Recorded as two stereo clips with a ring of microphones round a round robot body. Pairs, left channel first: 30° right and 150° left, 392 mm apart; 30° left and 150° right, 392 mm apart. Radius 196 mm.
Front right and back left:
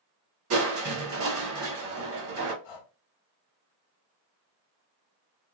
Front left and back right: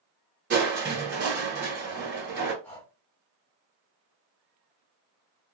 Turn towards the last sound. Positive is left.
turn(degrees=-55)